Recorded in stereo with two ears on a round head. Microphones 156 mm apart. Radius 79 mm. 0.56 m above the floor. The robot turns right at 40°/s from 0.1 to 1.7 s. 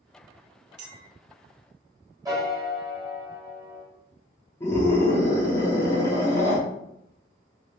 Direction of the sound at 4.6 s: 15° left (ahead or behind).